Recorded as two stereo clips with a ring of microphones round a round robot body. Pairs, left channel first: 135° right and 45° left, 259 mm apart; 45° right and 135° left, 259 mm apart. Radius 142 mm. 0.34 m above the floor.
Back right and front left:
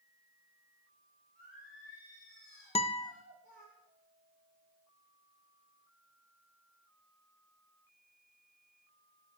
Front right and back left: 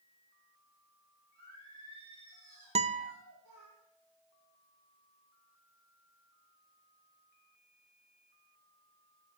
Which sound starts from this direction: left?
Singing, at 1.4 s.